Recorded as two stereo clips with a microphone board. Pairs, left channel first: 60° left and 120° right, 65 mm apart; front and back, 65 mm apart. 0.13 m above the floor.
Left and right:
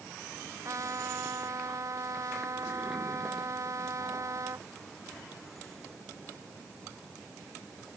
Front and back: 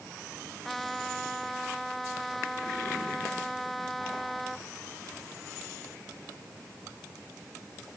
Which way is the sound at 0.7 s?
85° right.